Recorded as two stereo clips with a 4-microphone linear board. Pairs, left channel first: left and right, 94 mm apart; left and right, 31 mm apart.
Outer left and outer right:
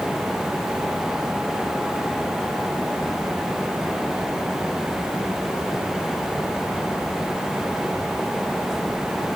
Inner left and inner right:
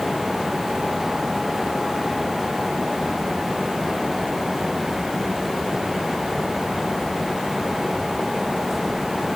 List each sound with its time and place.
Only background noise.